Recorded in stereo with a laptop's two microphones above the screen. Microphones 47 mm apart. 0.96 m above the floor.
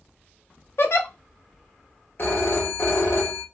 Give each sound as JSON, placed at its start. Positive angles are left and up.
{"t": 0.8, "sound": "a giggle", "side_deg": 60, "distance_m": 0.7}
{"t": 2.2, "sound": "a phone ringing", "side_deg": 55, "distance_m": 1.1}